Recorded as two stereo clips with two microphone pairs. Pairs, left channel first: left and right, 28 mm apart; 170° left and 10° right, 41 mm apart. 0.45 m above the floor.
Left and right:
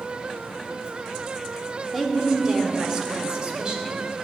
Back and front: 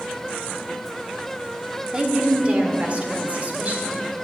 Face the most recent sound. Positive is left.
turn(degrees=-50)